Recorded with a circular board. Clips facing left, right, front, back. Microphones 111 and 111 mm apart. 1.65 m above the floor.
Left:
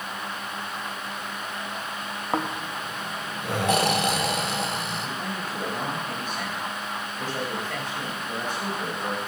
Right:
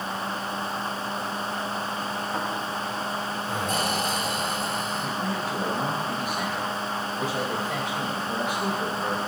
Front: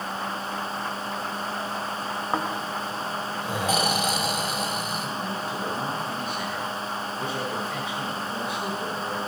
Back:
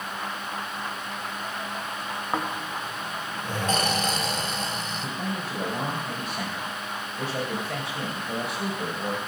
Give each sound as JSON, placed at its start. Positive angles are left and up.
{"t": 2.3, "sound": "snoring", "azimuth_deg": 80, "distance_m": 1.0}
{"t": 5.0, "sound": "a man speaking", "azimuth_deg": -170, "distance_m": 3.0}